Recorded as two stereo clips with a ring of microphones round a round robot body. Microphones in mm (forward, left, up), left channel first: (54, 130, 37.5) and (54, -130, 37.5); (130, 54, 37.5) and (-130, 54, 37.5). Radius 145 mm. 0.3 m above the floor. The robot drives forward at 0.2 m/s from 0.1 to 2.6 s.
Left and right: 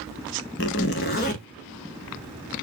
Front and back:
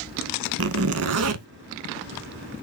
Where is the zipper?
145° left, 0.6 m; by 1.5 s 150° left, 0.8 m.